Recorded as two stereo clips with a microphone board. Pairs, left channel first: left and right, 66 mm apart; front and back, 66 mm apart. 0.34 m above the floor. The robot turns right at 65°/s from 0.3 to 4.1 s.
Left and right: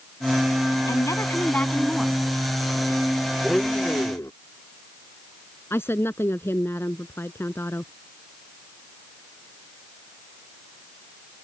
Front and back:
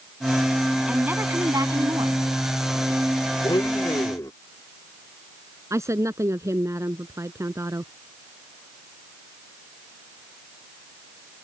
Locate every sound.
0.9 s a woman speaking: 105° left; by 2.2 s 165° right
3.4 s a blender: 5° right; by 4.3 s 40° left
5.7 s a woman speaking: 140° left